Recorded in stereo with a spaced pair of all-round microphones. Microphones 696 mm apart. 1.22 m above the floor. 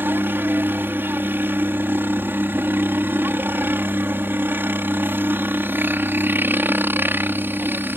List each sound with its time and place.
0.0 s a helicopter: 5° right (ahead or behind)